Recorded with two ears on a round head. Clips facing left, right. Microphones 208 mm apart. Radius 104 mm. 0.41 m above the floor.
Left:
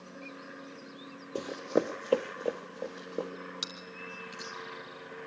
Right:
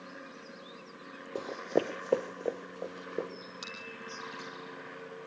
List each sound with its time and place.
1.4 s running footsteps: 15° left (ahead or behind), 0.5 m; by 3.3 s centre (ahead or behind), 2.5 m
3.6 s chewing: 30° left (ahead or behind), 3 m